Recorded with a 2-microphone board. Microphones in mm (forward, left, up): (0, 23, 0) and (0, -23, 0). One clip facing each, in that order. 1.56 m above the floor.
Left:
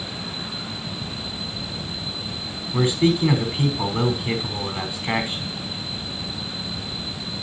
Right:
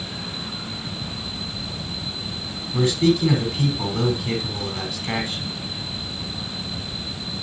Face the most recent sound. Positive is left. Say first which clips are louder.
# right 1 dB
turn(degrees=25)  # may be behind; listen again after turning